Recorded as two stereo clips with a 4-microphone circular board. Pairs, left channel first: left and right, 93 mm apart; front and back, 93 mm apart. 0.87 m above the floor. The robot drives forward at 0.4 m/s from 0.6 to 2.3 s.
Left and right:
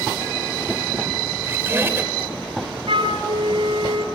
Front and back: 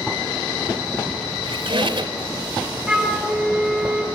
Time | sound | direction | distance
1.4 | a squeak | 155° right | 2.5 m
2.9 | a flute | 95° right | 2.5 m